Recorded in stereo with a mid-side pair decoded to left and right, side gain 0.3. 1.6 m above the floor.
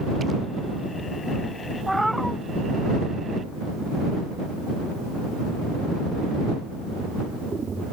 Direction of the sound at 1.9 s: 5° right.